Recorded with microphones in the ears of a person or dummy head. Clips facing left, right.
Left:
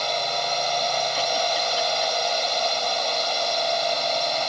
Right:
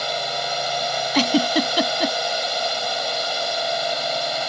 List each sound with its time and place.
0.0 s a drone: 10° right (ahead or behind)
1.1 s a giggle: 80° right